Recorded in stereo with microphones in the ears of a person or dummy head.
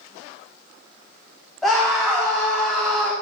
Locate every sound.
1.6 s a scream: centre (ahead or behind), 3 m